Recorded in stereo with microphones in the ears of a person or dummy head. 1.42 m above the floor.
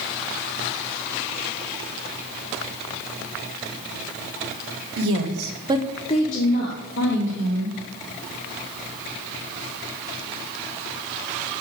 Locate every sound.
5.0 s a woman speaking: 75° right (ahead or behind), 1.4 m; by 7.8 s 65° left (ahead or behind), 3 m